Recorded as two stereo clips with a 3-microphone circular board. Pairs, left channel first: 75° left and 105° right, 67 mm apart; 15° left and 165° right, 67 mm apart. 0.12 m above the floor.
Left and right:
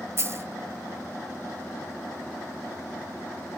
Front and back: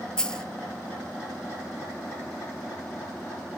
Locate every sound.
0.2 s a dropped coin: 65° right, 0.6 m